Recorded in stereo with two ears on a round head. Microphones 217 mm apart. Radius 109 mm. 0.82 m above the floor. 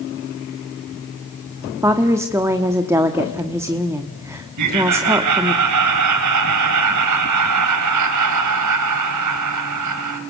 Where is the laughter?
85° right, 4.5 m.